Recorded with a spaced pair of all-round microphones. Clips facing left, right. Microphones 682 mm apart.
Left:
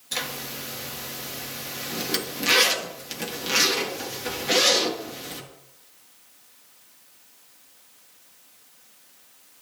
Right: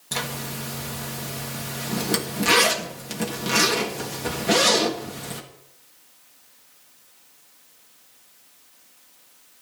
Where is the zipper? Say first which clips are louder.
Right 4 dB; 70° right (ahead or behind), 2 m.